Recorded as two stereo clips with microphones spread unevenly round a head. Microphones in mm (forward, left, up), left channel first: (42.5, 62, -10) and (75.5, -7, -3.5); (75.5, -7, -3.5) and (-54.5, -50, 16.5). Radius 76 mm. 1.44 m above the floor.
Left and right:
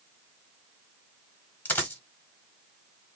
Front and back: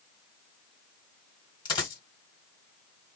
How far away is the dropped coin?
About 1.5 m.